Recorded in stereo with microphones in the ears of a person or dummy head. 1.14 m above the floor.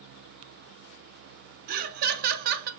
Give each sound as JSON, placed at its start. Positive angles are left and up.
{"t": 1.7, "sound": "laughter", "side_deg": -55, "distance_m": 0.6}